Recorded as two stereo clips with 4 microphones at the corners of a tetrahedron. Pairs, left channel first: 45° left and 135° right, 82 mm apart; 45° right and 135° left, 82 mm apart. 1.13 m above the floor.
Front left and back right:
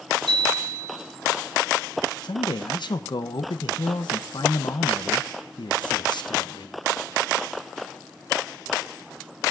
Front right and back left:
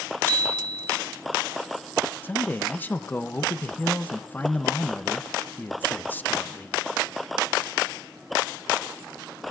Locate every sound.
0.3 s a bicycle bell: 115° right, 8.5 m
2.2 s a man speaking: 25° left, 0.6 m